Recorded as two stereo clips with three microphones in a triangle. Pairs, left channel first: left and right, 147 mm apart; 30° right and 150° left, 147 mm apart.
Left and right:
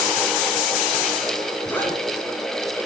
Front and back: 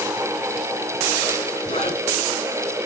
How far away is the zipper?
About 8 m.